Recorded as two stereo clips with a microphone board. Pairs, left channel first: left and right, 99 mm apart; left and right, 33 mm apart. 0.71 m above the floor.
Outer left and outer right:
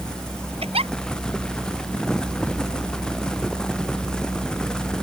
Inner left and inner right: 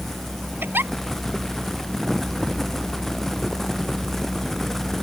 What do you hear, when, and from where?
0.6 s a giggle: 80° right